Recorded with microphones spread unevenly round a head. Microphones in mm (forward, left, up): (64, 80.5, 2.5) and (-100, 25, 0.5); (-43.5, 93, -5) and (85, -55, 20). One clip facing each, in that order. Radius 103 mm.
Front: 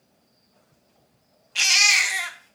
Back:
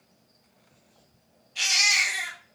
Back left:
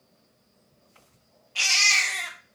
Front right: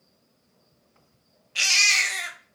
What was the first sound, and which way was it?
A baby crying, 15° left.